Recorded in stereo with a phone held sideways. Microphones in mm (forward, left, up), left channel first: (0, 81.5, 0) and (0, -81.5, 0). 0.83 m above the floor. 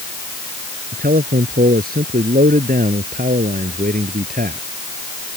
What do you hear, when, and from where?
0.9 s a man speaking: 70° right (ahead or behind); by 4.6 s 65° right (ahead or behind)